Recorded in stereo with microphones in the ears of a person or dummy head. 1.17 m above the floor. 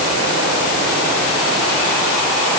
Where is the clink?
No clink in this recording.